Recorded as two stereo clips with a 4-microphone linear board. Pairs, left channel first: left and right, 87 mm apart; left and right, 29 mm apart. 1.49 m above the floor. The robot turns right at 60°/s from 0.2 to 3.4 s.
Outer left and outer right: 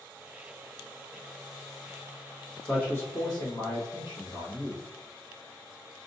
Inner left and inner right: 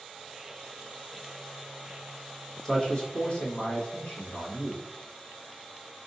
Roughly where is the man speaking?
Ahead.